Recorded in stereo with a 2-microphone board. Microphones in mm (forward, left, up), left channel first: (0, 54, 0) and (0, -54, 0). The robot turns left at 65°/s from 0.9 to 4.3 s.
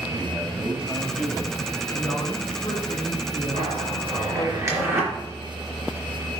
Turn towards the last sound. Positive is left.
turn(degrees=-25)  # may be behind; listen again after turning